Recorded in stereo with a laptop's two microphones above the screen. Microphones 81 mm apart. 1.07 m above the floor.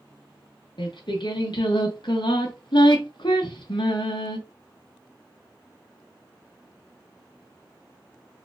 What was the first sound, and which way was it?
Singing, 70° left (ahead or behind).